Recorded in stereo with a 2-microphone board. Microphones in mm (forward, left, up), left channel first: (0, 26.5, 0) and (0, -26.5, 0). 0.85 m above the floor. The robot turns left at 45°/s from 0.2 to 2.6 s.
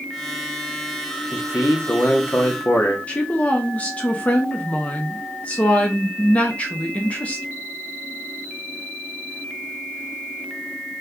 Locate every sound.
1.3 s a man speaking: 110° left, 0.8 m; by 3.0 s 55° left, 0.8 m
3.1 s a woman speaking: 25° left (ahead or behind), 0.7 m